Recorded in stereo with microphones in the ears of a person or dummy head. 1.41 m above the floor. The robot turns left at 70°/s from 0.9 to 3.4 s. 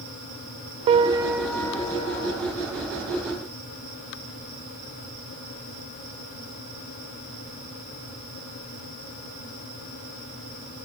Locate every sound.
0.9 s a piano: 140° right, 0.7 m; by 2.4 s 115° left, 0.7 m